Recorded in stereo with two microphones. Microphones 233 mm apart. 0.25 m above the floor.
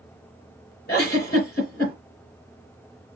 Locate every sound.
0.9 s a giggle: 45° left (ahead or behind), 2.5 m